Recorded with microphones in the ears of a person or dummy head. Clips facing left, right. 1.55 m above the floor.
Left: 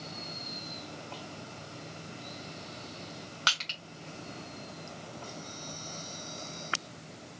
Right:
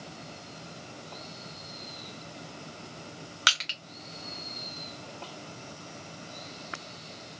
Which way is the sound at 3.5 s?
25° right (ahead or behind).